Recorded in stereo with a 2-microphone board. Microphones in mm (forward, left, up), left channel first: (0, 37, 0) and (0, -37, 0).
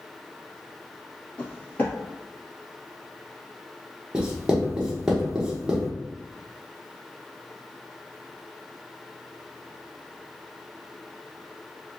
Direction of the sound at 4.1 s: 15° right (ahead or behind).